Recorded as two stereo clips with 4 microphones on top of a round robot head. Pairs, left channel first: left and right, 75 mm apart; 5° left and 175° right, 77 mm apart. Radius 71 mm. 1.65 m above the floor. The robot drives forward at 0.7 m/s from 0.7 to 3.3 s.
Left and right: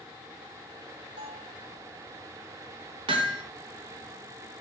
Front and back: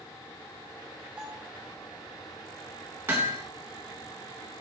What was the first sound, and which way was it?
A bell, 105° right.